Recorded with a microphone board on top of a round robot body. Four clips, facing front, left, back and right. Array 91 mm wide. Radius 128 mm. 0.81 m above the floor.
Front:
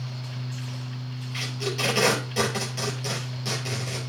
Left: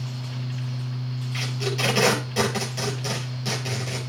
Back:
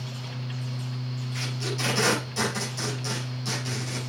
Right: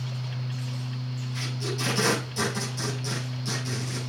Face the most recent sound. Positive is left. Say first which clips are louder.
# left 5 dB, front 3 dB
turn(degrees=65)